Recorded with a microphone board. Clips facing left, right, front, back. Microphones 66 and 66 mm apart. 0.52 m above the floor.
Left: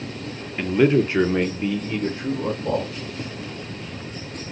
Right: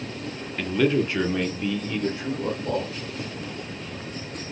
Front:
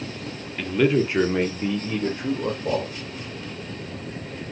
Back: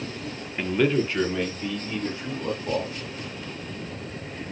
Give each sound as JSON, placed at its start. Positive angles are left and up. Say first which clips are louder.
{"t": 0.6, "sound": "a man speaking", "louder": "left 4 dB, front 2 dB", "azimuth_deg": 135, "distance_m": 0.7}